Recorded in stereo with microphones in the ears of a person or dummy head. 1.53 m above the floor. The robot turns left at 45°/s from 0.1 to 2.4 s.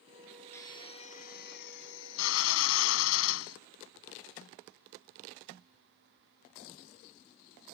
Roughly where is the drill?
Behind.